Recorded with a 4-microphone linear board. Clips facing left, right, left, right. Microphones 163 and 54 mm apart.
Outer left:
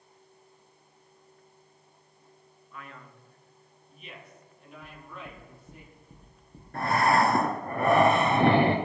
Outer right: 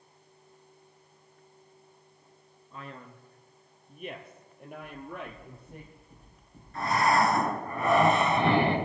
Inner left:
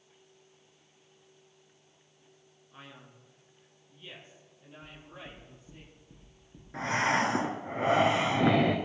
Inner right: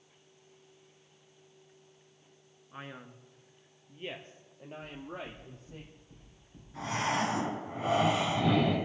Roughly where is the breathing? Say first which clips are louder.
Outer left 1 dB, inner left 4 dB; left.